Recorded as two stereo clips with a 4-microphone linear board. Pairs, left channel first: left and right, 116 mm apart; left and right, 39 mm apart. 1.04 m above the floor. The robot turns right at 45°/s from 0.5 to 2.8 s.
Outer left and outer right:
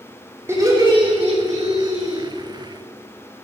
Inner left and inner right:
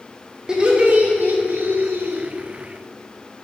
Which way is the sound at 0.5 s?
160° right.